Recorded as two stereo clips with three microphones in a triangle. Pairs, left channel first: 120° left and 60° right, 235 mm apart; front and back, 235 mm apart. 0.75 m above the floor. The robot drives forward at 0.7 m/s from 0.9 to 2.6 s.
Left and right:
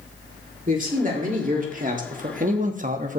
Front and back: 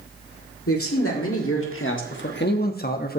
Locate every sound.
0.7 s a man speaking: 5° right, 1.8 m; by 3.2 s 20° right, 0.8 m